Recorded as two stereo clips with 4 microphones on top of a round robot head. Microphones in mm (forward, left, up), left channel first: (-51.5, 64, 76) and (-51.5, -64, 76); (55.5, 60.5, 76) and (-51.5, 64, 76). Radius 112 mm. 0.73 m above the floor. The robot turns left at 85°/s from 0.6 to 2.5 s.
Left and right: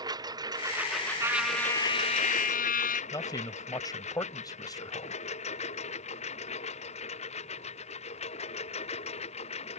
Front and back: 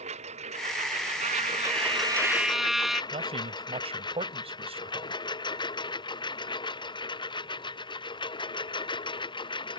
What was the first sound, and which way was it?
A lawn mower, 150° right.